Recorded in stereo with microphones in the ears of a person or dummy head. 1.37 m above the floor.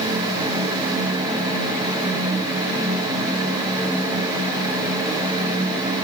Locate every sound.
Only background noise.